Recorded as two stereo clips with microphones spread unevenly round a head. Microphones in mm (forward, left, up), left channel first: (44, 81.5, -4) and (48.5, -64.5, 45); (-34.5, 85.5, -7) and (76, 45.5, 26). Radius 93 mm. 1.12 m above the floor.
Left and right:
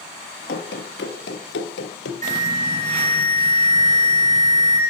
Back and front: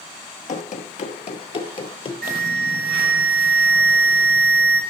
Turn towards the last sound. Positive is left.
turn(degrees=-50)